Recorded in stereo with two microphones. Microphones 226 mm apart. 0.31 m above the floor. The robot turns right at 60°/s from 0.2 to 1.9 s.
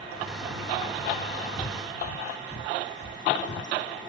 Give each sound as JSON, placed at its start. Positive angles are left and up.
{"t": 1.6, "sound": "breathing", "side_deg": 60}